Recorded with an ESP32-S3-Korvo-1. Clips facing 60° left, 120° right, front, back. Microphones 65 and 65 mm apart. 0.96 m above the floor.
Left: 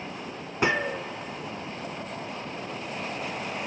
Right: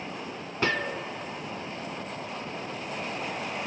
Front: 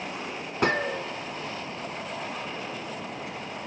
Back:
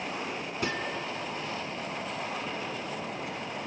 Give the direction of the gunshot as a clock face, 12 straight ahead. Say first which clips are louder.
Left 3 dB, front 8 dB; 12 o'clock.